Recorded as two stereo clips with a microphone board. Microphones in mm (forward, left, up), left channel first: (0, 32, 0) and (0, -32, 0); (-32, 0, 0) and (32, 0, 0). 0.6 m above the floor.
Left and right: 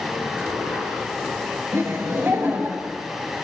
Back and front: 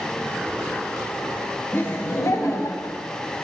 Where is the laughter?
120° right, 2.5 m; by 3.0 s 150° right, 3.5 m.